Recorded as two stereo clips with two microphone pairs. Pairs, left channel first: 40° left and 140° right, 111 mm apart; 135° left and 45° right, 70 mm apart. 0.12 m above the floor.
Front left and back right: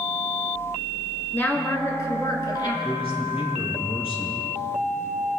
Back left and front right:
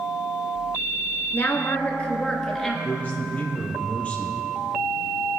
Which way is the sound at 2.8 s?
70° left.